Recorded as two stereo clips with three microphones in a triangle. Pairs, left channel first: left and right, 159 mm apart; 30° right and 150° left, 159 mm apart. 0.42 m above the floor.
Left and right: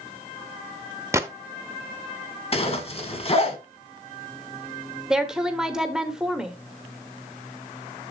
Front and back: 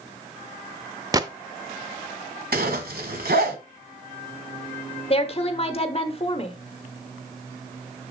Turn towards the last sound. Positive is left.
turn(degrees=-5)